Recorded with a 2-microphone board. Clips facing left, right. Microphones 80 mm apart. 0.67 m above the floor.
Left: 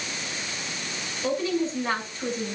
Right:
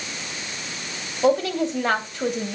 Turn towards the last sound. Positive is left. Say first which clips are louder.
# right 6 dB
turn(degrees=-75)  # may be behind; listen again after turning